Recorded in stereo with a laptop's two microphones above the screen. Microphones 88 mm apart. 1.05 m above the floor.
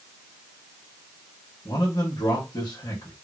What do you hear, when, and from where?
1.6 s a man speaking: 50° left (ahead or behind), 1.5 m